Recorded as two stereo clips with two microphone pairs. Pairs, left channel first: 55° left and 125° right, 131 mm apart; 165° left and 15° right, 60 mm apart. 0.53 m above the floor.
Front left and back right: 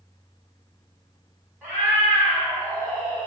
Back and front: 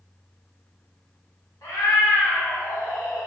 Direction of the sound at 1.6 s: 155° left.